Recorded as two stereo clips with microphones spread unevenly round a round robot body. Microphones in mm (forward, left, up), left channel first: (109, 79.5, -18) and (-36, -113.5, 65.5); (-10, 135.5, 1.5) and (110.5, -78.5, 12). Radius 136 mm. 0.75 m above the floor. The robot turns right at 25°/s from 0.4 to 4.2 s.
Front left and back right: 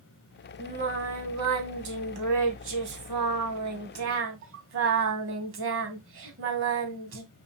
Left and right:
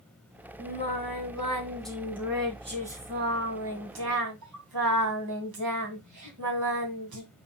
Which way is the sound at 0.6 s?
175° left.